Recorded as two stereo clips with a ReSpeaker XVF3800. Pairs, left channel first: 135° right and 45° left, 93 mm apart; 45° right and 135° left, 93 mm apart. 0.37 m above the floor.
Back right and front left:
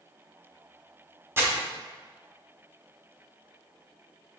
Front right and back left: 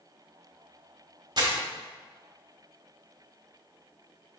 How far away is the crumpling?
About 1.1 m.